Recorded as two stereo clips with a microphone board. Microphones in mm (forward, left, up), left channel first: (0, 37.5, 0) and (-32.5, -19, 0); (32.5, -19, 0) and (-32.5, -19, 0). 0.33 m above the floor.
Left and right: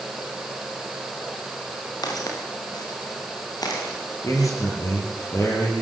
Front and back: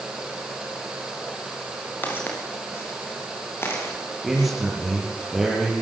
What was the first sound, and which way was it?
Footsteps, 60° left.